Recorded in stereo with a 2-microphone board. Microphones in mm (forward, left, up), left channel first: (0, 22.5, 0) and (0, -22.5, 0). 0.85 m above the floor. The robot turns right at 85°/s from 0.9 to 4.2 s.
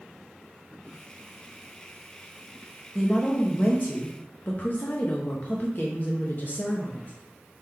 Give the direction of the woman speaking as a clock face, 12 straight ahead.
12 o'clock.